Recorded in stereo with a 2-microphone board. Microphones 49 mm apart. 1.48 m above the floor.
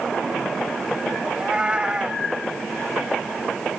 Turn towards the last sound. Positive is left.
turn(degrees=-20)  # may be behind; listen again after turning